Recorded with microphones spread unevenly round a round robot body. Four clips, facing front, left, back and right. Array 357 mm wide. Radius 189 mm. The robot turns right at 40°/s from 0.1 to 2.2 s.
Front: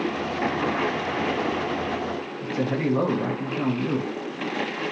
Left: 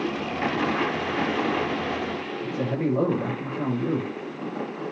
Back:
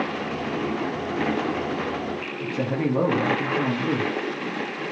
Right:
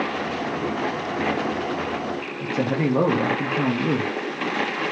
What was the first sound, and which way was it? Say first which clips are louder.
A man speaking: right 4 dB, even; 90° right.